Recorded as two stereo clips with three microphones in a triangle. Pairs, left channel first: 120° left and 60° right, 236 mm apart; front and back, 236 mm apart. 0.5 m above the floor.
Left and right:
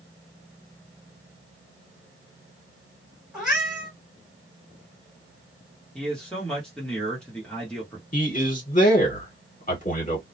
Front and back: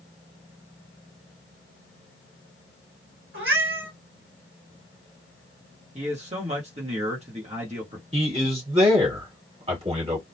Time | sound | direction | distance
3.3 | a cat meowing | 145° right | 1.7 m
6.0 | a man speaking | 155° right | 1.1 m
8.1 | a man speaking | 135° left | 1.6 m